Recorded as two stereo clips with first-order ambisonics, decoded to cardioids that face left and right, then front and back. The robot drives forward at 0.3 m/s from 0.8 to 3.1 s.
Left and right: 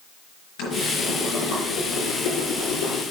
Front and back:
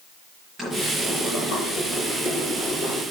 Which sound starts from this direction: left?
Boiling, at 0.6 s.